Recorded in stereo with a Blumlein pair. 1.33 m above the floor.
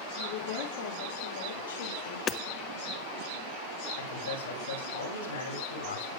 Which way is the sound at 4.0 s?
65° left.